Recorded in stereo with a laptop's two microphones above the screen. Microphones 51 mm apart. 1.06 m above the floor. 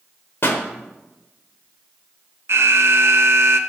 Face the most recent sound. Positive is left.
turn(degrees=-55)  # may be behind; listen again after turning